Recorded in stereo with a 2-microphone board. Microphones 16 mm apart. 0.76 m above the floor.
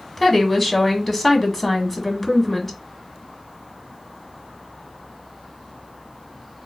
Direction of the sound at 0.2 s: 20° left (ahead or behind).